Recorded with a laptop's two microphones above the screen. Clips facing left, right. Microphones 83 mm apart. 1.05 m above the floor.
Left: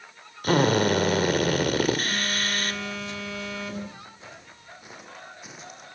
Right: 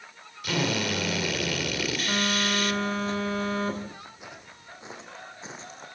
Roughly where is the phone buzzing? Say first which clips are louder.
Right 2 dB; right.